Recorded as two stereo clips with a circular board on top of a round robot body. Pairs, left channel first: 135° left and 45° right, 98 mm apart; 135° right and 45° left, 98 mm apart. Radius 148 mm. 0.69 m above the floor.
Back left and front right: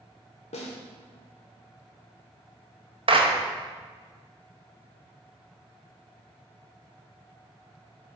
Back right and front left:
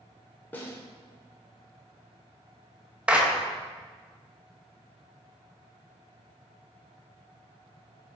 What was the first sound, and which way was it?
A snare drum, 150° left.